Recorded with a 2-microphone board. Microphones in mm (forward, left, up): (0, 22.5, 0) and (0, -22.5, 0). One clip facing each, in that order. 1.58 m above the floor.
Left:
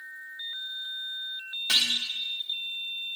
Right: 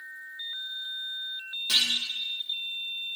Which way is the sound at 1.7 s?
65° left (ahead or behind).